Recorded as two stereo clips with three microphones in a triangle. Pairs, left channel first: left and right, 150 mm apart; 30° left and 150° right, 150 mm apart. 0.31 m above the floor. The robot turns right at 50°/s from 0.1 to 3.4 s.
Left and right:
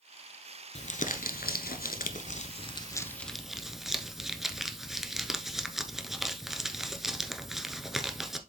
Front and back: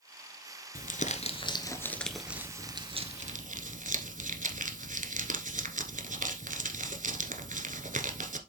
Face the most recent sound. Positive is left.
turn(degrees=180)